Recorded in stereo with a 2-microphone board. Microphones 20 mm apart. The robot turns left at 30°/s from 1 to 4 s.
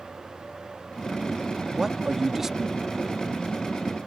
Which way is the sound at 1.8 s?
25° right (ahead or behind).